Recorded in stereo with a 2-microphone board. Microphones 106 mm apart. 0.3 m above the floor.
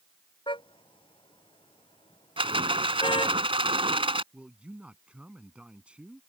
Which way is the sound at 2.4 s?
60° right (ahead or behind).